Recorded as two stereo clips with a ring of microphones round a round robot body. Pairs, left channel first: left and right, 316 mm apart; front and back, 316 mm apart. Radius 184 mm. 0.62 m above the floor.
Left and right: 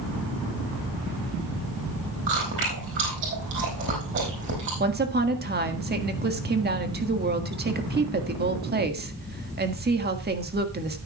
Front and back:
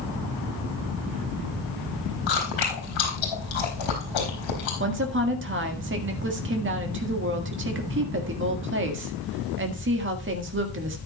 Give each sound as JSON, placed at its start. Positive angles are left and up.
{"t": 2.3, "sound": "chewing", "azimuth_deg": -30, "distance_m": 4.0}
{"t": 4.8, "sound": "a woman speaking", "azimuth_deg": -140, "distance_m": 1.7}